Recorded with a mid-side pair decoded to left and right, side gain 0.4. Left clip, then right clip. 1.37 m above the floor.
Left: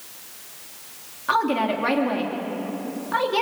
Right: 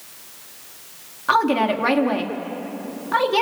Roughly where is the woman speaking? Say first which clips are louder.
Right 3 dB; ahead right.